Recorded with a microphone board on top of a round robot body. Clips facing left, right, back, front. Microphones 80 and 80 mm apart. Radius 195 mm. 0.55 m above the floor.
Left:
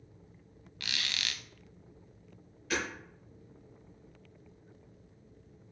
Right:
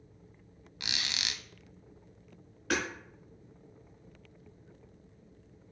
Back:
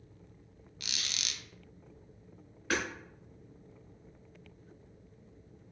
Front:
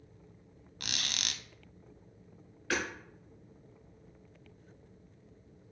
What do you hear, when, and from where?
0.8 s a squeak: 25° right, 0.7 m
2.7 s hammering: 110° right, 4 m